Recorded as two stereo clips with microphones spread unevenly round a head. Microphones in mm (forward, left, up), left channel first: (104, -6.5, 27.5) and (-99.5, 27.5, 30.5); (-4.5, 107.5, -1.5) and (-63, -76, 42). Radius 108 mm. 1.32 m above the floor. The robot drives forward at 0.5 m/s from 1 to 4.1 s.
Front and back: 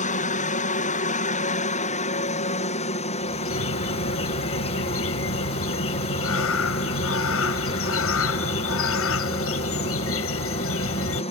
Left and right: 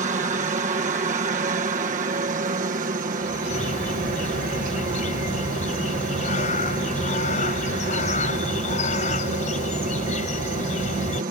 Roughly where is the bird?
Ahead.